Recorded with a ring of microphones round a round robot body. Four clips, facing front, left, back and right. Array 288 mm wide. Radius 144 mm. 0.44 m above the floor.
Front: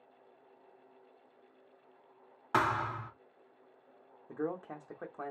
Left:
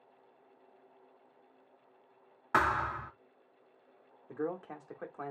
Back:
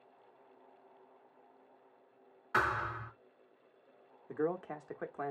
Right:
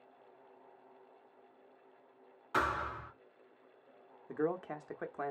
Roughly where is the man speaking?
Behind right.